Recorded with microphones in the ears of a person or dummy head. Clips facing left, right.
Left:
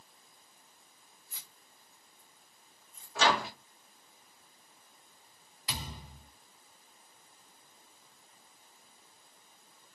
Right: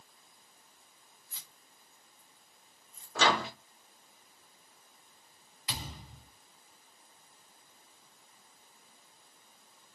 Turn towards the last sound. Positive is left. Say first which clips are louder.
# left 1 dB
turn(degrees=30)  # may be behind; listen again after turning